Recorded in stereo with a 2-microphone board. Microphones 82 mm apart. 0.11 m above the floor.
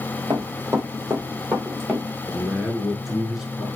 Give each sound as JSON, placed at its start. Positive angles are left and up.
{"t": 0.3, "sound": "running footsteps", "side_deg": -40, "distance_m": 2.0}
{"t": 2.3, "sound": "a man speaking", "side_deg": -5, "distance_m": 1.1}